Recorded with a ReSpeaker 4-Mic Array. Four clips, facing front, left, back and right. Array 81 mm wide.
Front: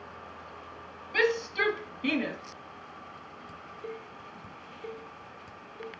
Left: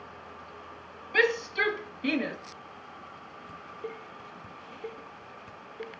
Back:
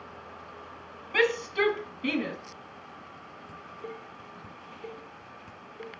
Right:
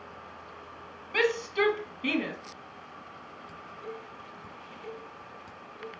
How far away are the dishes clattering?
About 1.1 m.